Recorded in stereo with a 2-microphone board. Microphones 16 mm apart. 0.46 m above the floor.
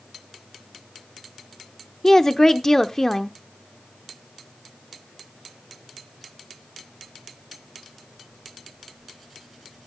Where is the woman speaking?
25° left (ahead or behind), 0.8 m.